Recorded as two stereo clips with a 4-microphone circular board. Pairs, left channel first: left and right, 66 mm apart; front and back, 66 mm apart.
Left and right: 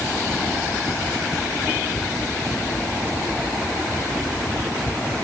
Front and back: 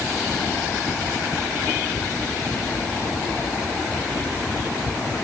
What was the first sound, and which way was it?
Only background noise.